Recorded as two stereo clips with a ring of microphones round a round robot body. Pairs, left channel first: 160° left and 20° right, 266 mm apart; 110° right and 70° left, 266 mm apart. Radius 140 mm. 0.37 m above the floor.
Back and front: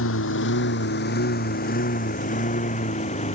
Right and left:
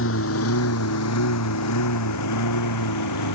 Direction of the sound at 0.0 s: 160° right.